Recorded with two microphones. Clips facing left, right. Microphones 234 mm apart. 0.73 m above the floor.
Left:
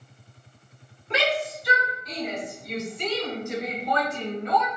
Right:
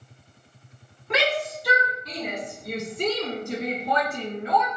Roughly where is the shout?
Right.